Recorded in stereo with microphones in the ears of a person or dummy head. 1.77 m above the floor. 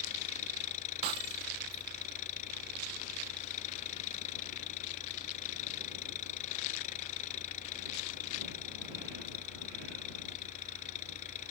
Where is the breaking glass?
25° right (ahead or behind).